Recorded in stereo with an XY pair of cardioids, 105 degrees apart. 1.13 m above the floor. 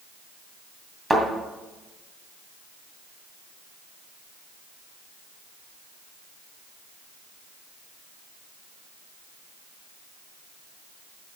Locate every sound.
1.1 s a thud: 20° right, 2.5 m